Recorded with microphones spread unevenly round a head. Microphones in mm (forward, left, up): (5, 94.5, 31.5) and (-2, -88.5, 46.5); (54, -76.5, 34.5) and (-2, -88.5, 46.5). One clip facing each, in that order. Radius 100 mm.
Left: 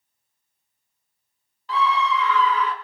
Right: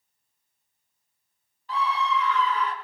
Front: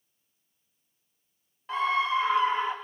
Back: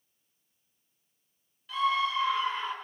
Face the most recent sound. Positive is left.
turn(degrees=85)